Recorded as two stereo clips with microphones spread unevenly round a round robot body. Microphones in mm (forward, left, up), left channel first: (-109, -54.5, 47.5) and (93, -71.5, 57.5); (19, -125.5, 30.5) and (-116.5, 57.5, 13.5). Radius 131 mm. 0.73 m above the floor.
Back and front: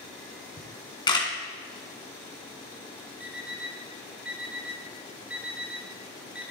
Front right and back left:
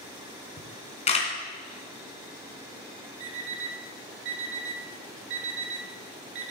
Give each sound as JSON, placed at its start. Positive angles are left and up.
{"t": 0.6, "sound": "a camera shutter", "azimuth_deg": -115, "distance_m": 2.5}
{"t": 3.2, "sound": "an alarm clock", "azimuth_deg": 80, "distance_m": 1.0}